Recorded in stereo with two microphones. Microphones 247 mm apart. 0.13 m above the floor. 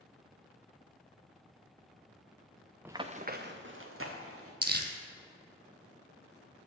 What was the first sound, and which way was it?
Running footsteps, 5° right (ahead or behind).